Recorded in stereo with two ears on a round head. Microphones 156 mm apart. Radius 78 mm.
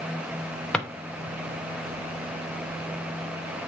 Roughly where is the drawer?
Centre.